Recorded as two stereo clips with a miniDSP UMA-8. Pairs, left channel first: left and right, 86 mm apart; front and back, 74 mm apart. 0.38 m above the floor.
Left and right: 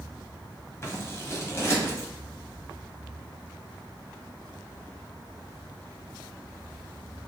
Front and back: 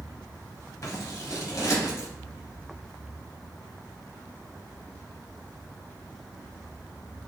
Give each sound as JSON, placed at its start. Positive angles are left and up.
{"t": 0.8, "sound": "scissors", "azimuth_deg": 35, "distance_m": 1.2}